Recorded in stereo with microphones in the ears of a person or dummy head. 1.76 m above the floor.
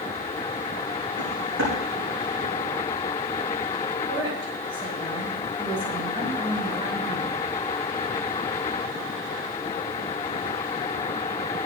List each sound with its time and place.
1.2 s footsteps: 65° right (ahead or behind), 7.5 m
4.1 s a woman speaking: 30° right (ahead or behind), 7.5 m